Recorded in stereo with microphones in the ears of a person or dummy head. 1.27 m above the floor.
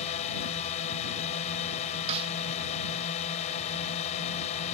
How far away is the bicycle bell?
I don't hear a bicycle bell.